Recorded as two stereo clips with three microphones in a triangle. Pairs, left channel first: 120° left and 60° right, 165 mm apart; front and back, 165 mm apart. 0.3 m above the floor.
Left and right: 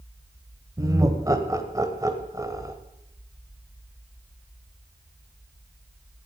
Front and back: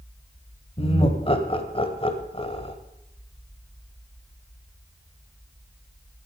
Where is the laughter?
5° right, 1.5 m.